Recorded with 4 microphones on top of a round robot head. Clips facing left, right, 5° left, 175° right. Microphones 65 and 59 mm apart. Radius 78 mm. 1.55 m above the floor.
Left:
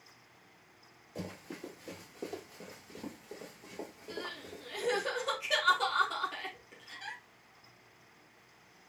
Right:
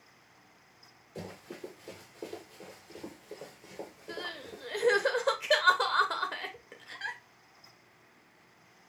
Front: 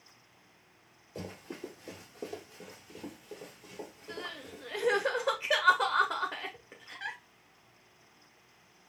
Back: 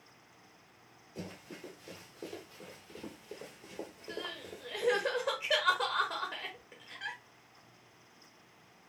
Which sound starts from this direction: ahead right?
Crying, at 4.1 s.